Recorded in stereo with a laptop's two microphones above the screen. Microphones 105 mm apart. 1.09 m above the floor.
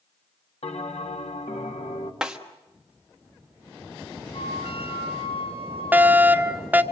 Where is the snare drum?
5° right (ahead or behind), 1.2 m.